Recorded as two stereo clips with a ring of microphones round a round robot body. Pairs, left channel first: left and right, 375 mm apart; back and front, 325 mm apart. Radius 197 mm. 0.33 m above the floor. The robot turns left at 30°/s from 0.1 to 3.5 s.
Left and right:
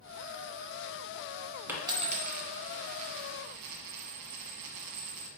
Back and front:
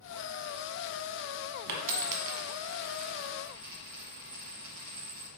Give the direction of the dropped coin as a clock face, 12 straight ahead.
12 o'clock.